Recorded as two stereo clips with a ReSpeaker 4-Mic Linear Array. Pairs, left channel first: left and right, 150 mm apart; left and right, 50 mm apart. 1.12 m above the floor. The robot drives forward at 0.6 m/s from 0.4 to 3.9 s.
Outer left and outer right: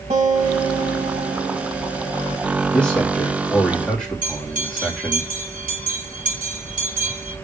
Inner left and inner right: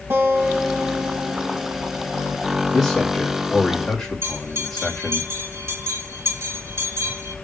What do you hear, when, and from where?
0.1 s a guitar: 50° right (ahead or behind), 3 m; by 2.4 s 75° right (ahead or behind), 2.5 m
2.7 s a man speaking: 5° left (ahead or behind), 2 m
4.2 s a bell: 70° right (ahead or behind), 2 m